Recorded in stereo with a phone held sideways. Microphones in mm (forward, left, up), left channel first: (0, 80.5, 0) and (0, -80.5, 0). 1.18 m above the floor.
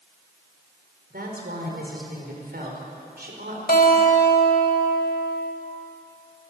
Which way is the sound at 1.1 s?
75° right (ahead or behind).